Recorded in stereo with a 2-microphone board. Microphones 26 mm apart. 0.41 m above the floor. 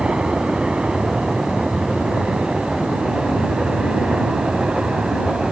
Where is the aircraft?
40° right (ahead or behind).